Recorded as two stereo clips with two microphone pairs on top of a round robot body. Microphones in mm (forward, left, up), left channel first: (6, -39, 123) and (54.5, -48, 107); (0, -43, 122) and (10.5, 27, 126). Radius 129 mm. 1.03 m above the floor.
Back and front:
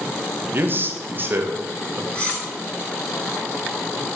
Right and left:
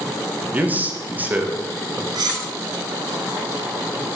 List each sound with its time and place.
0.5 s a man speaking: 15° left, 1.5 m
2.1 s cutlery clinking: 95° left, 2 m